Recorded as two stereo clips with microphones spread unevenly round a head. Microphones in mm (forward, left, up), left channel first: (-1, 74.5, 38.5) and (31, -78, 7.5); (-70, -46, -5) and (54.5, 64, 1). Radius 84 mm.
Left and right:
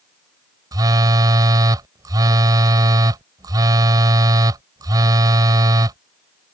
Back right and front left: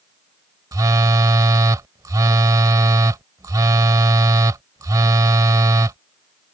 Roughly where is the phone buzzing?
Ahead.